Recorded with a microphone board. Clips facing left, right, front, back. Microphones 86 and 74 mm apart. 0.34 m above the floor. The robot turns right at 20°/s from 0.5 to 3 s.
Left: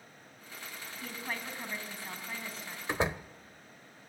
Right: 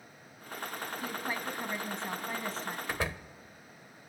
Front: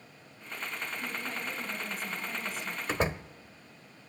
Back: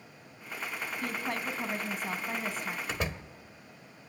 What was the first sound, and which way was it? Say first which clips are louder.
A woman speaking: right 2 dB, back 3 dB; 175° right.